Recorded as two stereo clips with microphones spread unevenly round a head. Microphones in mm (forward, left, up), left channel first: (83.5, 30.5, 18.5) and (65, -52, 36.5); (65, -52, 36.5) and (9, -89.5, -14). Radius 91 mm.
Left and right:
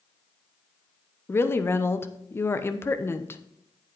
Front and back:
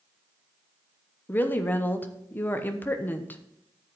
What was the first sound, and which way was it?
A woman speaking, 10° left.